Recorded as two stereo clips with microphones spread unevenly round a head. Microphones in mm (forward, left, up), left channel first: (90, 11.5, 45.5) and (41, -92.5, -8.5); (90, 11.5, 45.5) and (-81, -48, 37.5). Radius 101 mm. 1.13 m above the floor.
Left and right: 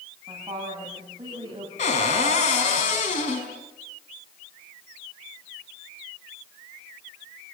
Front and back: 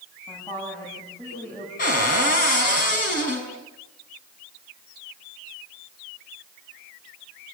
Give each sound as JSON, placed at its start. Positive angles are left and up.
{"t": 0.3, "sound": "a woman speaking", "azimuth_deg": -55, "distance_m": 9.5}
{"t": 1.8, "sound": "a cupboard door", "azimuth_deg": 65, "distance_m": 5.5}